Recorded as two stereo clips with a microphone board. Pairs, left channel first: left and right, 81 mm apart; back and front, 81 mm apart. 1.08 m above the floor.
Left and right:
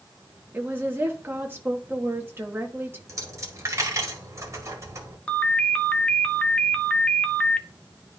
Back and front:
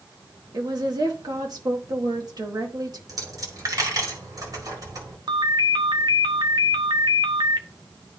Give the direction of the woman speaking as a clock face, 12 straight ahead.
1 o'clock.